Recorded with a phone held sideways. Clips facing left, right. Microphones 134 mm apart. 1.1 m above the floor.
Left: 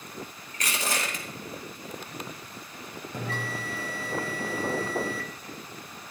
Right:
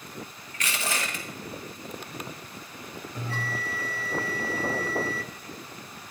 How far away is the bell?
About 1.7 m.